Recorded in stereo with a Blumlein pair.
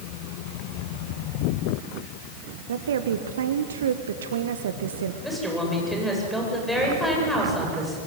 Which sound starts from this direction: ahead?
A woman speaking, at 5.2 s.